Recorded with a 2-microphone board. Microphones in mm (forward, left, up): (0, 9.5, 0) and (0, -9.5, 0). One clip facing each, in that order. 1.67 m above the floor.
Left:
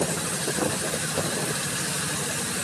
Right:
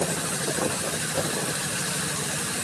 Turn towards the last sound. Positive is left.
No sound to turn to.